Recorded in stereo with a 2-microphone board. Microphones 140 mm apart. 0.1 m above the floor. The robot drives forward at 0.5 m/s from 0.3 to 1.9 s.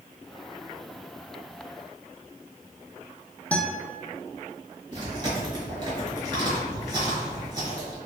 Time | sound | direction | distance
3.5 | a guitar | 10° left (ahead or behind) | 0.6 m
4.9 | chewing | 30° right (ahead or behind) | 1.5 m